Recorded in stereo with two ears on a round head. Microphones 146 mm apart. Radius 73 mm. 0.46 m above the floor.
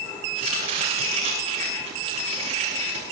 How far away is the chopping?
About 9 m.